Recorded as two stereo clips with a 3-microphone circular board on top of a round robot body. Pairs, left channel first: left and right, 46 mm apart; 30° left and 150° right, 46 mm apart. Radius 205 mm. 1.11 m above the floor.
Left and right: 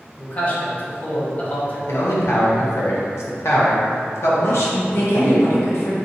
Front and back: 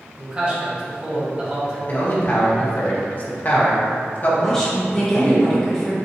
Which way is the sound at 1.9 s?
80° left.